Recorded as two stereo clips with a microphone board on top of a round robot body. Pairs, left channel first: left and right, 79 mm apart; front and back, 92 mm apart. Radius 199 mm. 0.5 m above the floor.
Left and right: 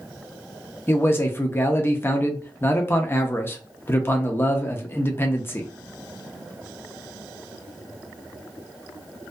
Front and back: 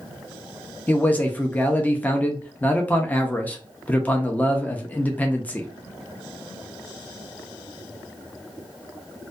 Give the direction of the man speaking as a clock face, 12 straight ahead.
10 o'clock.